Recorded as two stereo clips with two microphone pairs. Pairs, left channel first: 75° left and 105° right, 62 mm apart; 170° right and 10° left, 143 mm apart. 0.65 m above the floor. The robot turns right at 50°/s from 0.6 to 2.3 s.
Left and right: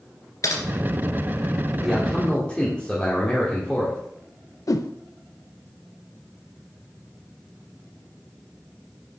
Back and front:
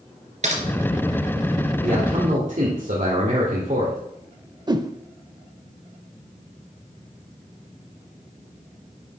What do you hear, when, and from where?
0.4 s typing on a keyboard: 45° left, 2 m
1.8 s a man speaking: 20° right, 2 m; by 4.0 s 5° left, 2 m
4.7 s a whoosh: 70° left, 0.6 m